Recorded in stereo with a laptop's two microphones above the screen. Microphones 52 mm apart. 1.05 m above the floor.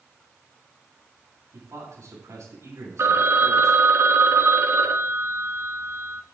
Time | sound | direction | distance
1.5 | a man speaking | 85° right | 9 m
3.0 | a phone ringing | 65° right (ahead or behind) | 1.1 m